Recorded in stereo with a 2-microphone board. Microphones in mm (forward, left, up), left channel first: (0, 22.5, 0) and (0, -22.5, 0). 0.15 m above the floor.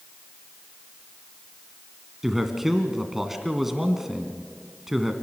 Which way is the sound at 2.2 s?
5° right (ahead or behind).